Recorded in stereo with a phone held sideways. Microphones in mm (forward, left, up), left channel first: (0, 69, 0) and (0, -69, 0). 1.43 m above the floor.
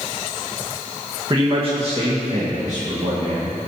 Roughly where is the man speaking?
Right.